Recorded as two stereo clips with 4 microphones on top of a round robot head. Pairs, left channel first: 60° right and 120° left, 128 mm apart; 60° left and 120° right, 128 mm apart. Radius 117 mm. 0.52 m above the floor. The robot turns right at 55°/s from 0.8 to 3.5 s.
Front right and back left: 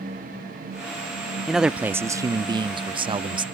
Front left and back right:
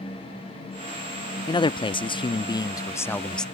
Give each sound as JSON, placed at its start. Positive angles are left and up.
{"t": 1.5, "sound": "a man speaking", "azimuth_deg": 30}